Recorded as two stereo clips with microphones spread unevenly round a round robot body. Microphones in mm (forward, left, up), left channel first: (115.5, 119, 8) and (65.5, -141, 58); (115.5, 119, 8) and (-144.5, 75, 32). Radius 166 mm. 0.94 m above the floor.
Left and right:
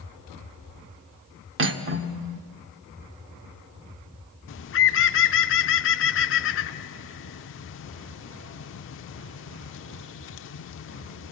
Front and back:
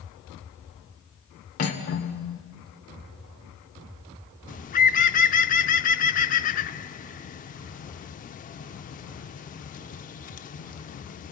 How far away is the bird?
About 0.6 m.